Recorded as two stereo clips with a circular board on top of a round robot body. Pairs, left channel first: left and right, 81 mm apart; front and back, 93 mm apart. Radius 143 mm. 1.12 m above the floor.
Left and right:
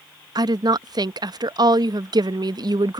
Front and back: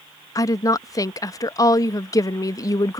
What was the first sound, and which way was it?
A woman speaking, 55° right.